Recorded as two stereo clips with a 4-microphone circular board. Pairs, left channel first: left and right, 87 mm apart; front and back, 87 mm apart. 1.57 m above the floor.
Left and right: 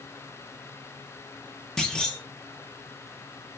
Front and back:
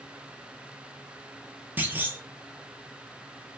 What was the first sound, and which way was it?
A clunk, 160° left.